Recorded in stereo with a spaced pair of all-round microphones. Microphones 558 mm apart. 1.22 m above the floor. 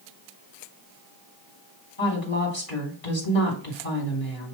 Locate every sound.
2.0 s a woman speaking: 70° left (ahead or behind), 2 m